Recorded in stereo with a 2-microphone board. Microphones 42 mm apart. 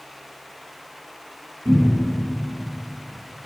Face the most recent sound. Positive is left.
turn(degrees=-70)  # may be behind; listen again after turning